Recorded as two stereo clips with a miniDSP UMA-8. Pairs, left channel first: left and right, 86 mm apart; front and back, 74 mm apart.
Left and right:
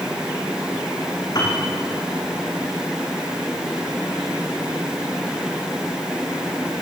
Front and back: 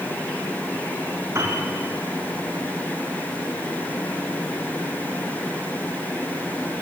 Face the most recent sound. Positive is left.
turn(degrees=130)